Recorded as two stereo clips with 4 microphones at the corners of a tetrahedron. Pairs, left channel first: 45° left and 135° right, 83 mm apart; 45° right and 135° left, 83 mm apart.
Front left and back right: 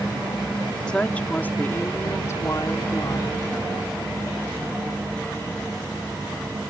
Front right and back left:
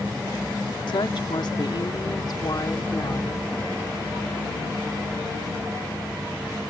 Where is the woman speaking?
35° right; by 3.4 s 5° left.